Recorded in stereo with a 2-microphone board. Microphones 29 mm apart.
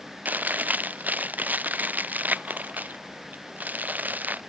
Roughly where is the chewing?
Right.